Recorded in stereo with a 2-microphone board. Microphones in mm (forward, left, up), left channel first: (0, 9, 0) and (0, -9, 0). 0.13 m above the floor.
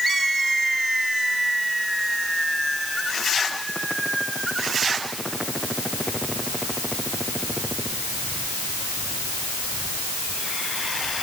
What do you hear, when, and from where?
Only background noise.